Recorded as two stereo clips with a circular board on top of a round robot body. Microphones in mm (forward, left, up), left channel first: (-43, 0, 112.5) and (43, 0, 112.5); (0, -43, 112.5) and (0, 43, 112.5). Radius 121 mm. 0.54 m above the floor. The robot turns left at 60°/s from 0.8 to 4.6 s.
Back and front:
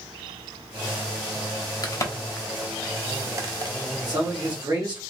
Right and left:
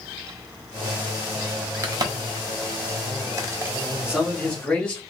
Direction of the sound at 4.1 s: 15° left.